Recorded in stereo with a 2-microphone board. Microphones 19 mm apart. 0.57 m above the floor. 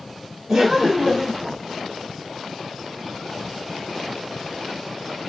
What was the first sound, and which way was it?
Laughter, 25° right (ahead or behind).